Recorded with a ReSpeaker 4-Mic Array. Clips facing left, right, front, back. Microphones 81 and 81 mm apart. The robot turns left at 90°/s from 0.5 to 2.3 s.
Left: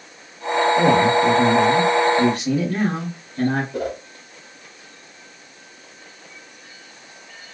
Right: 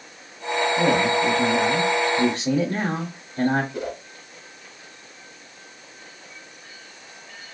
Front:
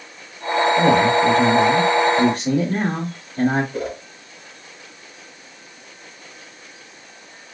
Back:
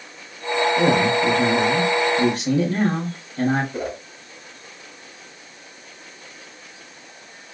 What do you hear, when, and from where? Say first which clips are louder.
0.8 s a man speaking: left 4 dB, front 3 dB; 100° left, 1.0 m; by 3.6 s 35° right, 1.0 m
3.7 s a whoosh: left 4 dB, front 1 dB; 95° left, 0.9 m